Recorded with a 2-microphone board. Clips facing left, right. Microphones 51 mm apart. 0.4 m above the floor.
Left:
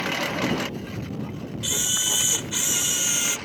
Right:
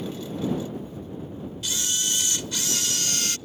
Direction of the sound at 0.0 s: 85° left.